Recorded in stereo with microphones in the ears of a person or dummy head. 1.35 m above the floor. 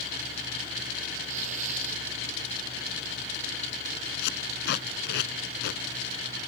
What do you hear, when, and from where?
1.2 s tearing paper: 45° right (ahead or behind)
4.2 s tape being pulled: 65° left (ahead or behind)